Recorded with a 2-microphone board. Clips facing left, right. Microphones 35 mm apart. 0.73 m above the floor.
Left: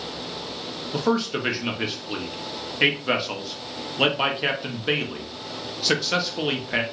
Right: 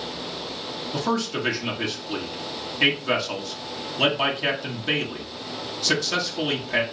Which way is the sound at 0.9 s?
15° left (ahead or behind).